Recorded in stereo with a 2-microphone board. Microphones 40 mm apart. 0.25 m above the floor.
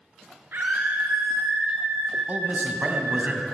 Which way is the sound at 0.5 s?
60° right (ahead or behind).